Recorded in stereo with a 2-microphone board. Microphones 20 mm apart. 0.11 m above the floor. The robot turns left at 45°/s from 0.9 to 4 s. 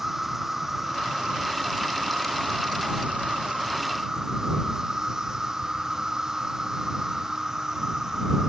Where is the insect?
15° right; by 8.5 s 155° right.